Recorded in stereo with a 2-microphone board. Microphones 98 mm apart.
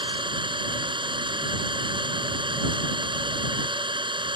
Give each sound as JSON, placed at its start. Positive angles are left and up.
{"t": 0.0, "sound": "an engine running", "side_deg": -55}